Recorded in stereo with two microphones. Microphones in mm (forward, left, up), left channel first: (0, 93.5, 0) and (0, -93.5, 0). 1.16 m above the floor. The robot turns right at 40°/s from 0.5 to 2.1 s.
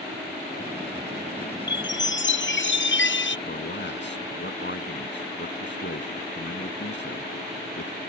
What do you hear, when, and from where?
1.7 s a chime: 65° left (ahead or behind); by 3.4 s 80° left
3.5 s a man speaking: 75° left (ahead or behind)